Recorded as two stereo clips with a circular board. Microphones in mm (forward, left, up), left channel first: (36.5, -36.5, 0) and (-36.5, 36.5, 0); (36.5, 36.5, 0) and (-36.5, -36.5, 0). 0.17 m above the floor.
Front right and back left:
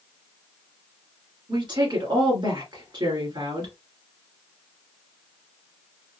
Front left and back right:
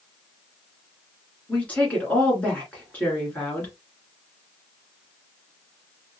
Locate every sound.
1.5 s a woman speaking: 115° left, 1.8 m